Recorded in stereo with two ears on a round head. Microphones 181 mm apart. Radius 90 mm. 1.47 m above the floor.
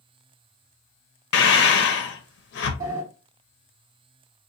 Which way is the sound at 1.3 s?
60° left (ahead or behind).